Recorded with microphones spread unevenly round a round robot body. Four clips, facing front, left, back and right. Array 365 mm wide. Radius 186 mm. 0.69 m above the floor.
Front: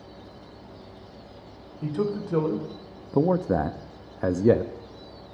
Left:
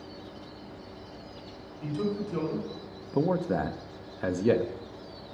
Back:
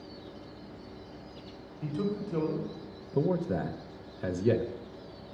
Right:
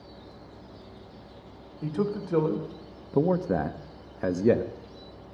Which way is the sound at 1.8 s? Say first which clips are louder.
Right 2 dB, front 5 dB; 35° right.